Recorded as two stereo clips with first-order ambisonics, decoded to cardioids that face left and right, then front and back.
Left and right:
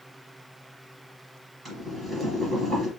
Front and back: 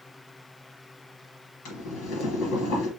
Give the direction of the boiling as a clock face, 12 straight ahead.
12 o'clock.